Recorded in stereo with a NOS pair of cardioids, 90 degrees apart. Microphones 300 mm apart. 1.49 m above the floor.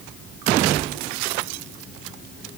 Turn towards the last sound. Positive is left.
No sound to turn to.